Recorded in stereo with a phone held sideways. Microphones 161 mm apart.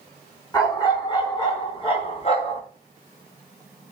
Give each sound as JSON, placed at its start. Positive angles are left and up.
{"t": 0.5, "sound": "a dog barking", "side_deg": 20, "distance_m": 4.0}